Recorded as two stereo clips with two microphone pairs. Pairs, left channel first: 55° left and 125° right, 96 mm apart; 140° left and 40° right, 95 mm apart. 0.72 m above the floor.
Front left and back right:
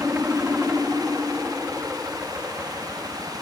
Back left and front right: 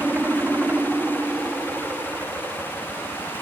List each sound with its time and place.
0.0 s a helicopter: 70° right